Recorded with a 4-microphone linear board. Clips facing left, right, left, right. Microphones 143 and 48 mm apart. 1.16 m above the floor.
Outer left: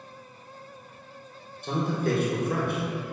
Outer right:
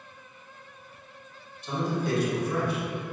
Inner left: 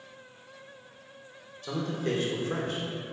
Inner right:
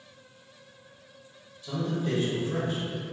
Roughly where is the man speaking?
Left.